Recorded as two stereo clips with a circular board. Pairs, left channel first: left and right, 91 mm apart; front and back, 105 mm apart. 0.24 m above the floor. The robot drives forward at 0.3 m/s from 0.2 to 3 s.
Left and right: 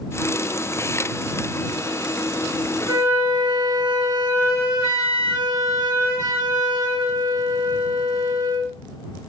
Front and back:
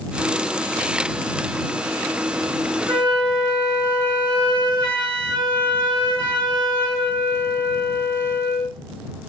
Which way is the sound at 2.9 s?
140° right.